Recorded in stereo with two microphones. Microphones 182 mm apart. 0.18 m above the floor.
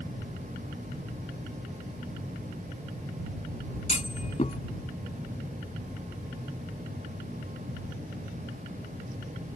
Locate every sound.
3.9 s a clunk: 40° left (ahead or behind)